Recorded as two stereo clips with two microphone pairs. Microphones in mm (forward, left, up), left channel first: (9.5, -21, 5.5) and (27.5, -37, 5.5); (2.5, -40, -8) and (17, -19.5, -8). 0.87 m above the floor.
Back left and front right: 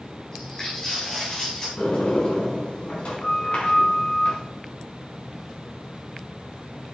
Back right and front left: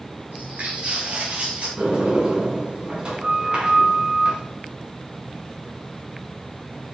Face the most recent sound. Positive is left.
turn(degrees=105)